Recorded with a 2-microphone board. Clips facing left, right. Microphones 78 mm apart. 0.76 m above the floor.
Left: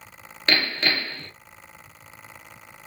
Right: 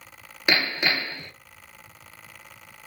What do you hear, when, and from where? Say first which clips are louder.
0.5 s hammering: even; 10° right (ahead or behind), 0.7 m